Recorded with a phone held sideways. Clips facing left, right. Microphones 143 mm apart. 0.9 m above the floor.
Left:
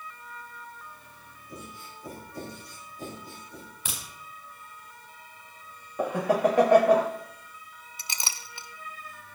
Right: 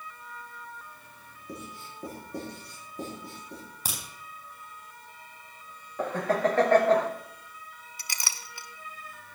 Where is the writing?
85° right, 8.5 m.